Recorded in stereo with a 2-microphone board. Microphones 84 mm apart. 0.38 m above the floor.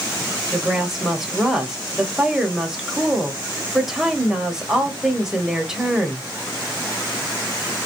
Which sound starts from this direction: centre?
A woman speaking, at 0.5 s.